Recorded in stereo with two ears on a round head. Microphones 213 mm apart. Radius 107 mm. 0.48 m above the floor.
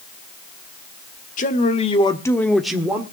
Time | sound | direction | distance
1.4 | a man speaking | 35° left (ahead or behind) | 1.4 m